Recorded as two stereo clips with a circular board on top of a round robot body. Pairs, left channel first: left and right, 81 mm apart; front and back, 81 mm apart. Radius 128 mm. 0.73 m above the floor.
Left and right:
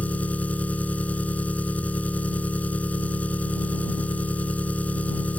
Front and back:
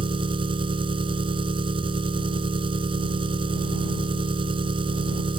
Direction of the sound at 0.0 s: 165° left.